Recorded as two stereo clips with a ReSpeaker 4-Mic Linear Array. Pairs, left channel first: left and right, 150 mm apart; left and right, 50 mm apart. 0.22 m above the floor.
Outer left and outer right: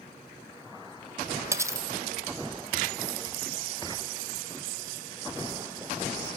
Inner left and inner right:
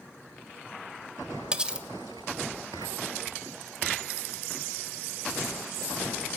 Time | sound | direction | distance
1.5 | cutlery clinking | 20° right (ahead or behind) | 0.5 m